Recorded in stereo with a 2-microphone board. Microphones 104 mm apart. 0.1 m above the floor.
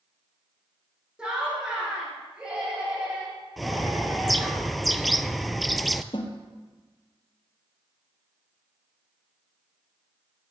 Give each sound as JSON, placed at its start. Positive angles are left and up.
{"t": 1.2, "sound": "laughter", "side_deg": -10, "distance_m": 7.0}
{"t": 3.6, "sound": "a bird", "side_deg": 0, "distance_m": 0.5}
{"t": 6.1, "sound": "a snare drum", "side_deg": 50, "distance_m": 1.8}